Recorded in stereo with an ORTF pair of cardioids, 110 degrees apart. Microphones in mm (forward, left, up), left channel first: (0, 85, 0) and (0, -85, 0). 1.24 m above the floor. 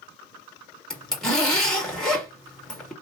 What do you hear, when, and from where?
0.9 s a zipper: 5° left, 2 m